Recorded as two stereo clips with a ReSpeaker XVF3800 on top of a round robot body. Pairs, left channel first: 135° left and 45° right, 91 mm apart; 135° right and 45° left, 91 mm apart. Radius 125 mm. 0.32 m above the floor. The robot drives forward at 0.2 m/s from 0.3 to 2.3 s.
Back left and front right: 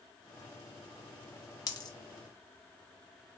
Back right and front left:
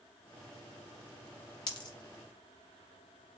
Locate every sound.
1.7 s a dropped coin: 175° right, 1.0 m